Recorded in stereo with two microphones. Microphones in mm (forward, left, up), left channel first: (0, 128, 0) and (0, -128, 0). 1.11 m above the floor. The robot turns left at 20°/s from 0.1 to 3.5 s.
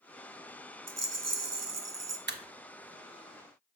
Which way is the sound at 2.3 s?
45° right (ahead or behind).